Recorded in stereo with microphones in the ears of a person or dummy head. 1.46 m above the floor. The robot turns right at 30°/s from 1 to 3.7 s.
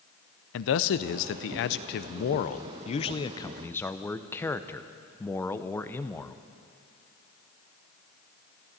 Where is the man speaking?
85° left, 0.6 m; by 6.4 s 165° left, 0.6 m.